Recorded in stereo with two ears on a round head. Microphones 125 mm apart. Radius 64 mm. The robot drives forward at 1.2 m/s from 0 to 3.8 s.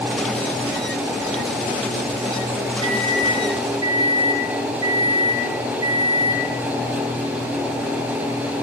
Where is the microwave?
40° right (ahead or behind), 3.5 m; by 6.5 s 30° right (ahead or behind), 4.5 m.